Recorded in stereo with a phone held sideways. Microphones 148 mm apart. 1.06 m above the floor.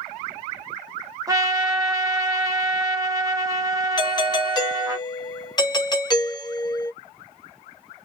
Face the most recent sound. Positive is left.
turn(degrees=30)  # may be behind; listen again after turning